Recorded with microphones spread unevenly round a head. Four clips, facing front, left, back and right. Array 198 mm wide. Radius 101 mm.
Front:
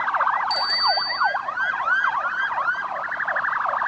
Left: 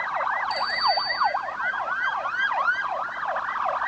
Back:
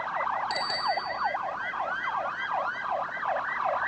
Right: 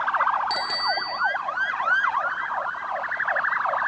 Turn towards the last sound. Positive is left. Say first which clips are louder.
# left 2 dB, front 6 dB
turn(degrees=-105)